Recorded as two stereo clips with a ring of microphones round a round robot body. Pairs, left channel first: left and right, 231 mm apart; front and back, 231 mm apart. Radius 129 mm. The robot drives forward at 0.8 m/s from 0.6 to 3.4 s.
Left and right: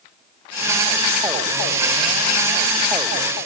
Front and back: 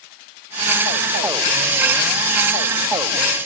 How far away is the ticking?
I don't hear ticking.